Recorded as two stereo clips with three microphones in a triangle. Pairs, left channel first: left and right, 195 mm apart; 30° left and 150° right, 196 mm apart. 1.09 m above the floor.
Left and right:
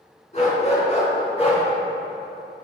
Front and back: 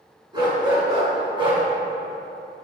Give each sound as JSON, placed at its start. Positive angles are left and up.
{"t": 0.3, "sound": "a dog barking", "azimuth_deg": 145, "distance_m": 3.5}